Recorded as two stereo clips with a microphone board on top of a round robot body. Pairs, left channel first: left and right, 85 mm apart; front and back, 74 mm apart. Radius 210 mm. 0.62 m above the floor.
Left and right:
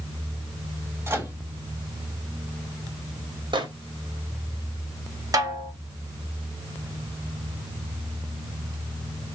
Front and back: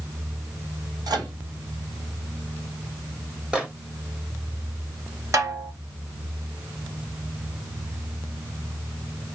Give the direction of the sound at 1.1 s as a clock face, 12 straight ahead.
5 o'clock.